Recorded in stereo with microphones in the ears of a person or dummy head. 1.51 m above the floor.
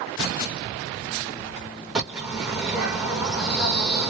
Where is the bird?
5° right (ahead or behind), 0.9 m.